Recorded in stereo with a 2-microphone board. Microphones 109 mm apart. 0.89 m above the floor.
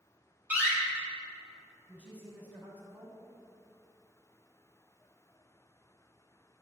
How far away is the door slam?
About 3 m.